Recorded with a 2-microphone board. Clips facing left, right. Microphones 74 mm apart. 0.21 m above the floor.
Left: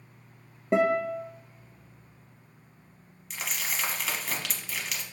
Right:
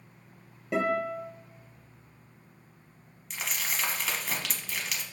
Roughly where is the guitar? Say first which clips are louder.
Left 4 dB; left.